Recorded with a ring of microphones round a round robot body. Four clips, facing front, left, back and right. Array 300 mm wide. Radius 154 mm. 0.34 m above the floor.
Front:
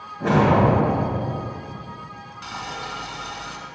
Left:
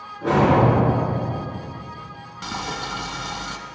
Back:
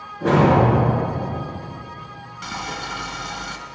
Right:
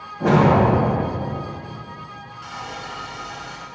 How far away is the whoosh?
About 3 m.